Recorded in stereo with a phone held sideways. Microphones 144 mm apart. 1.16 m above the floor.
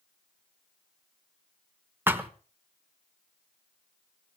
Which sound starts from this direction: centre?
A thud, at 2.1 s.